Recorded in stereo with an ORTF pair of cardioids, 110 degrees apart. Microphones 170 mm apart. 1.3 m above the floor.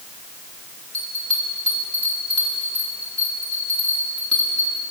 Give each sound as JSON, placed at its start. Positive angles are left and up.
{"t": 0.9, "sound": "a bell", "azimuth_deg": 5, "distance_m": 8.0}